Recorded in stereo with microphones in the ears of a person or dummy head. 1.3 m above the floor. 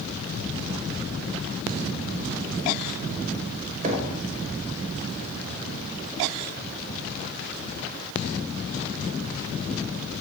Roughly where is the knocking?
Right.